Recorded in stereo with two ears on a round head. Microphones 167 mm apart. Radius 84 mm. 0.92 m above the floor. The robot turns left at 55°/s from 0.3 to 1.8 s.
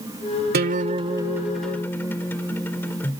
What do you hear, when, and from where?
0.5 s a guitar: 125° right; by 3.2 s 170° left